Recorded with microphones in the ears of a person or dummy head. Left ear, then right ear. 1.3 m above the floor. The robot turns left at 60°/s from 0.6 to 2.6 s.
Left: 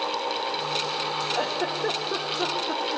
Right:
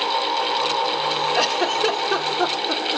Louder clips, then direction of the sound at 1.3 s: Right 7 dB; 70° right (ahead or behind).